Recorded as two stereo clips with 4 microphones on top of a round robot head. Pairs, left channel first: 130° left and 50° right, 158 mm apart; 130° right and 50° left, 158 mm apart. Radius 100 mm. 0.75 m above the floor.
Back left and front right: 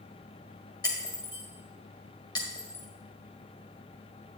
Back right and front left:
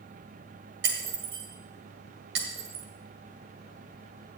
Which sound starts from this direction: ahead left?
Breaking glass, at 0.8 s.